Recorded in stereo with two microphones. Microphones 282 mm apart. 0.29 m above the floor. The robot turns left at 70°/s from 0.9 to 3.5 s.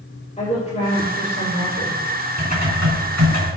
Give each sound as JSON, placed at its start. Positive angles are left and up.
{"t": 0.4, "sound": "a woman speaking", "azimuth_deg": 155, "distance_m": 5.5}
{"t": 2.4, "sound": "typing on a keyboard", "azimuth_deg": -25, "distance_m": 3.5}